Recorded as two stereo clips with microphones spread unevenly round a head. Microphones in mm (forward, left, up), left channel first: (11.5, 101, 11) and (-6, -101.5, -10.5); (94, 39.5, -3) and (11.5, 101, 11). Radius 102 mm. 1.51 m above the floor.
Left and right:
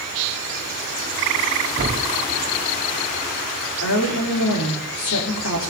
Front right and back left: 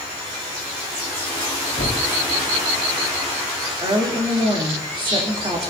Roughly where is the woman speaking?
Left.